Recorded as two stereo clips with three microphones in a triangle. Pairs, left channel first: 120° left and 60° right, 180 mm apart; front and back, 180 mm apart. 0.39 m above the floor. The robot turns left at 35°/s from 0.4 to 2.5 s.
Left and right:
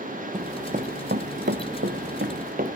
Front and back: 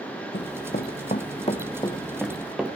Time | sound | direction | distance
0.3 | running footsteps | 5° right | 0.8 m